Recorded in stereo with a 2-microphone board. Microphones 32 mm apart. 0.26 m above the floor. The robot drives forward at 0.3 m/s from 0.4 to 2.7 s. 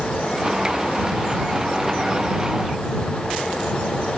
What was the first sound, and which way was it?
Only background noise.